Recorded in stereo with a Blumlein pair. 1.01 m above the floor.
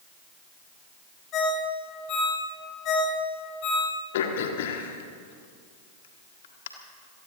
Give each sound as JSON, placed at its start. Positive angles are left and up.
{"t": 1.3, "sound": "a ringtone", "azimuth_deg": 35, "distance_m": 4.5}
{"t": 4.1, "sound": "throat clearing", "azimuth_deg": 55, "distance_m": 1.7}